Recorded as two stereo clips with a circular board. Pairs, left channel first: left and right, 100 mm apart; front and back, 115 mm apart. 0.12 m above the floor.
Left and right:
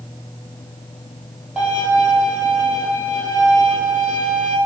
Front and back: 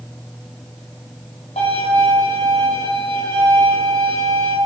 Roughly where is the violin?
Ahead.